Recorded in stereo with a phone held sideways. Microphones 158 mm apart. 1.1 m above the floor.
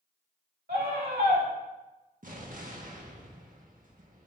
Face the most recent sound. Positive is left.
turn(degrees=-60)  # may be behind; listen again after turning